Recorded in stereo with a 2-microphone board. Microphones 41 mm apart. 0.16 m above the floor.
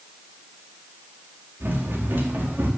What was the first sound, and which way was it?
Running footsteps, 80° right.